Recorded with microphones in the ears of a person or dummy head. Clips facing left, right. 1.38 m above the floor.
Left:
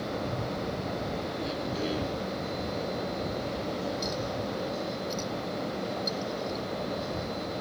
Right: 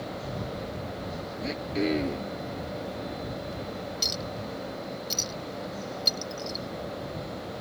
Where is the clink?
45° right (ahead or behind).